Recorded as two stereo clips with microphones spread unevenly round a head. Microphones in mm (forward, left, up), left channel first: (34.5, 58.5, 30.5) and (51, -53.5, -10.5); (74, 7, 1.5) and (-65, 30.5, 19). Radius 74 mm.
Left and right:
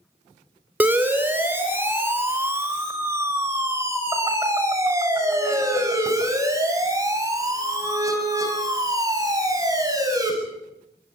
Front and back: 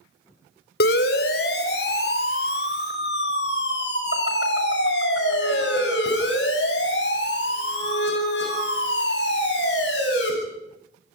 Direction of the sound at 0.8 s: 5° right.